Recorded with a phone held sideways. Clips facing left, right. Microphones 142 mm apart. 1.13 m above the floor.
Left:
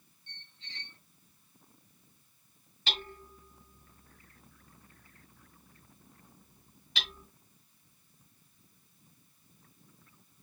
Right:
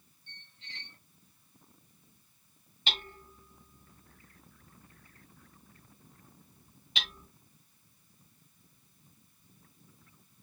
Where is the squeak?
10° right (ahead or behind), 3 m.